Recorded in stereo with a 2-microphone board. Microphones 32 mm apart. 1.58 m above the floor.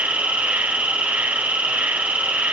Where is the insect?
65° right (ahead or behind), 1.4 m.